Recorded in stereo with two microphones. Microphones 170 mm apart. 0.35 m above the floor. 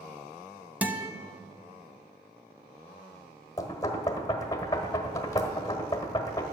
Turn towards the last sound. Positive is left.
turn(degrees=20)  # may be behind; listen again after turning